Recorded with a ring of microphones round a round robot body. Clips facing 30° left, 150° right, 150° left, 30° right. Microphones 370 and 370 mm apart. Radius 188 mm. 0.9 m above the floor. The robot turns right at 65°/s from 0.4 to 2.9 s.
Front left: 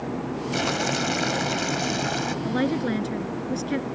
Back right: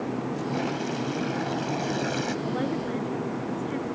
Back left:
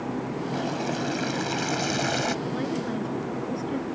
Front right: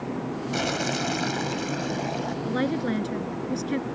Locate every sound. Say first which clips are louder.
0.5 s boiling: front left 3 dB, front right 1 dB; straight ahead; by 2.4 s 120° left
2.5 s a woman speaking: front left 4 dB, front right 3 dB; 20° right; by 3.9 s 10° left